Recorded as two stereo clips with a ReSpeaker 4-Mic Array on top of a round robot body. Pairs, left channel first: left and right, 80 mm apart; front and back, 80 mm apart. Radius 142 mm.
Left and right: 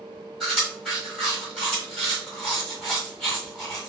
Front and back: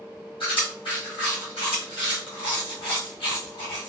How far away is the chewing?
About 1.7 m.